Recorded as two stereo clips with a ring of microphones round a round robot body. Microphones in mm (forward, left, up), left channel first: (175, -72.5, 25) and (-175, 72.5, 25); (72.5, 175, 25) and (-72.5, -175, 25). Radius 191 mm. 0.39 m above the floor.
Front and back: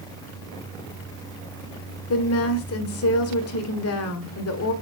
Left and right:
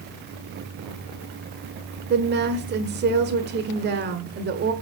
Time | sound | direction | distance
2.1 | a woman speaking | 60° right | 1.3 m